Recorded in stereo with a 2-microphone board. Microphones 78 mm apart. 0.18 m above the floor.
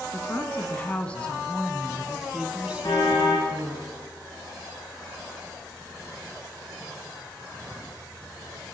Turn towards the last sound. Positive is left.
turn(degrees=55)  # may be behind; listen again after turning